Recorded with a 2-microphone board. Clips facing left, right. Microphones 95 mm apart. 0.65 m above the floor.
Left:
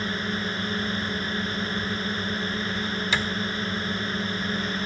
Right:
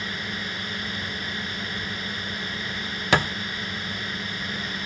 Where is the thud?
65° right (ahead or behind).